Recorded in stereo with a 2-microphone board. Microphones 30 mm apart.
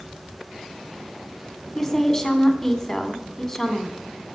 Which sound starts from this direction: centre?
A woman speaking, at 1.8 s.